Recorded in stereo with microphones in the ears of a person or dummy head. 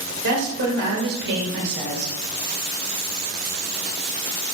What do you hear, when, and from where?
0.2 s a woman speaking: 60° right (ahead or behind), 7.5 m